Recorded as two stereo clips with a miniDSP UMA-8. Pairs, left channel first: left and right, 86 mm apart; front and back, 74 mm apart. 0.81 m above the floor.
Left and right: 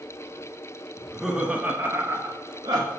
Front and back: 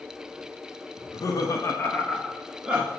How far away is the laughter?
About 0.9 m.